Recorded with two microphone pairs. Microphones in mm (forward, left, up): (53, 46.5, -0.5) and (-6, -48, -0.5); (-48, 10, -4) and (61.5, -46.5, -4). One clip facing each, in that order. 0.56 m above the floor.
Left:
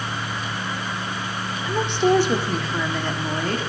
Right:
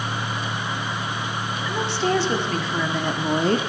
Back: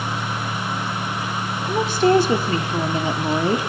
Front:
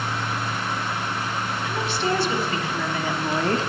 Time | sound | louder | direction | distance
1.6 | a woman speaking | left 5 dB, back 9 dB | 120° left | 1.9 m